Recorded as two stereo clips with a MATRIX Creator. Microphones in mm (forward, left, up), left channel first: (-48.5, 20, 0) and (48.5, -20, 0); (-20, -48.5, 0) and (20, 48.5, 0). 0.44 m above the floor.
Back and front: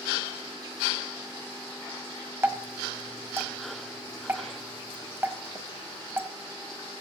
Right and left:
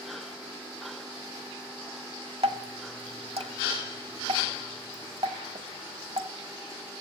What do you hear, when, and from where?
2.4 s dripping: 45° left, 1.4 m